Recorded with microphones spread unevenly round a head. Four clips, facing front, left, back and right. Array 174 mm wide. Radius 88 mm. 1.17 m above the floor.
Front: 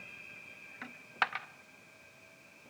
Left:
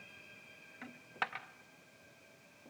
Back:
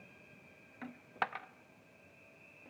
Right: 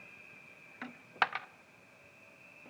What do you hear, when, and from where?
0.8 s a dropped coin: 95° right, 0.5 m